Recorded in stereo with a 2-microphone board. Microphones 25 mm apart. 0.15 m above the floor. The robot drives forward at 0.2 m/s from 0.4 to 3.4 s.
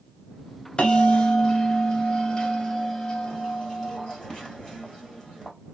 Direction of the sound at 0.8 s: 30° left (ahead or behind).